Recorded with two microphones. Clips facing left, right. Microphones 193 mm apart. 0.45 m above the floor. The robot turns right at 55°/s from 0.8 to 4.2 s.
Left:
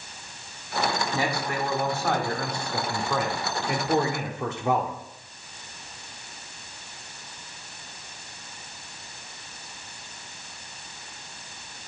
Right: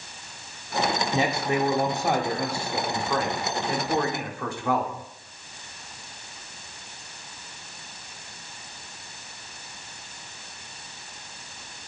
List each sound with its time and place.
1.1 s a man speaking: 20° right (ahead or behind), 1.0 m; by 4.9 s 20° left (ahead or behind), 1.0 m